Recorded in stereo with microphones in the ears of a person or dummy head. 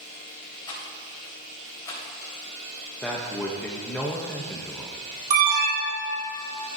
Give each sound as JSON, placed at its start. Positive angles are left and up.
{"t": 0.7, "sound": "a rattle", "side_deg": 15, "distance_m": 4.0}
{"t": 3.0, "sound": "a man speaking", "side_deg": 10, "distance_m": 0.8}
{"t": 5.3, "sound": "an alarm", "side_deg": -45, "distance_m": 2.5}